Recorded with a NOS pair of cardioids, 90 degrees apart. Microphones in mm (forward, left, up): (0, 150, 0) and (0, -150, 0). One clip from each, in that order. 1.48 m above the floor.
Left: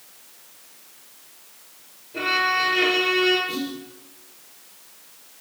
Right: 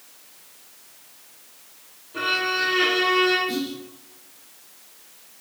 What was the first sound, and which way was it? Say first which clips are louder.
A violin: left 2 dB; 5° right.